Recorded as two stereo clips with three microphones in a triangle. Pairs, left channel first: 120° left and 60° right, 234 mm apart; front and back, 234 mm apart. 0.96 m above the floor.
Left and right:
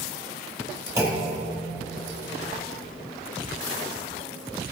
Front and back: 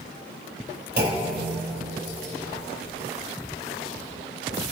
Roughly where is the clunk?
Behind right.